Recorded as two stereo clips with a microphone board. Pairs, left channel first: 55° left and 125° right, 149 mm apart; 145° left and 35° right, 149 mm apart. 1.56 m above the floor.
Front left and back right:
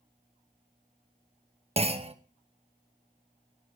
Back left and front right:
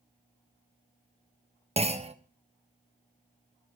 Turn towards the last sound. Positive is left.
turn(degrees=-80)